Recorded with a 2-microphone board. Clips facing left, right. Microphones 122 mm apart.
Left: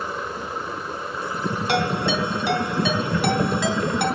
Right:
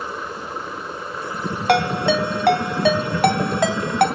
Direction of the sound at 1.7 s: 60° right (ahead or behind).